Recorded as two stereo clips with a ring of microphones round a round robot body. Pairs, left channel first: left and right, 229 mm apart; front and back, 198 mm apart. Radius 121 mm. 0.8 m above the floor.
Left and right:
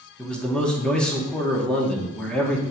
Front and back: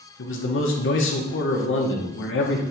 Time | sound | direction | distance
0.2 | a man speaking | 5° left | 1.3 m